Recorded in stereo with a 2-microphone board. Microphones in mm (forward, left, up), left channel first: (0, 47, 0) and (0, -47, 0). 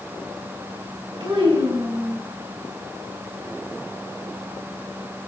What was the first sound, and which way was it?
A child speaking, 70° right (ahead or behind).